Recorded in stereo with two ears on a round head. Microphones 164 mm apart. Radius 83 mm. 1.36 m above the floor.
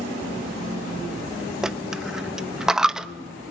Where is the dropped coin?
5° right (ahead or behind), 0.6 m.